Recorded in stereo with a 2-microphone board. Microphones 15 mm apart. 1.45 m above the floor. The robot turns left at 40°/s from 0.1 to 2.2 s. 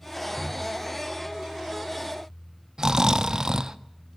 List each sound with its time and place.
0.4 s a drawer: 30° left (ahead or behind), 4 m; by 0.7 s 40° left (ahead or behind), 4 m
2.8 s snoring: 45° right (ahead or behind), 0.6 m